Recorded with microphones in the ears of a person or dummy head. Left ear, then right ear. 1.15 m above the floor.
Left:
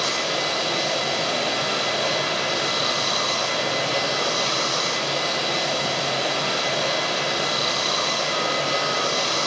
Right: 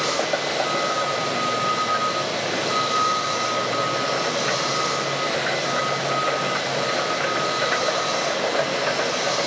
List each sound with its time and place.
0.0 s running water: 75° left (ahead or behind), 2.5 m